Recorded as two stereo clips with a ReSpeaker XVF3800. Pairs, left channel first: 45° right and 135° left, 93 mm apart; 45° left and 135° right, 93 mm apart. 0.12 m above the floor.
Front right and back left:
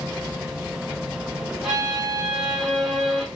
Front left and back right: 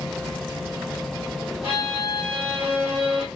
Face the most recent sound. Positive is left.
turn(degrees=-140)